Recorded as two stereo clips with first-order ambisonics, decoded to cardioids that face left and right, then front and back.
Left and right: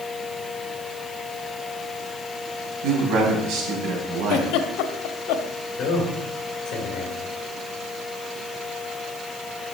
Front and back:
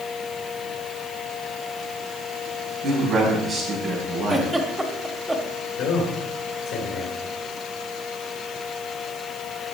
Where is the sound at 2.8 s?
95° right, 4.5 m.